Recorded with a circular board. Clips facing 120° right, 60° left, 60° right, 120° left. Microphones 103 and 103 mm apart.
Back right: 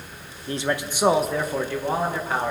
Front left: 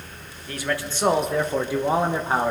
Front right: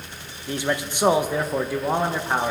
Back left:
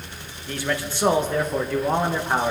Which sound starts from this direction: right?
A man speaking, at 0.5 s.